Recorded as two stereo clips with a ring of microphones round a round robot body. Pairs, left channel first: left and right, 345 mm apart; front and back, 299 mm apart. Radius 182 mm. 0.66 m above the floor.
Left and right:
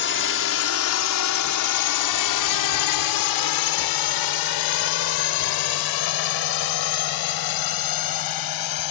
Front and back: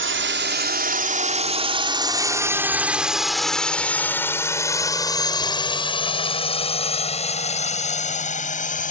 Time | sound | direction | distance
0.0 | a drone | 140° left | ?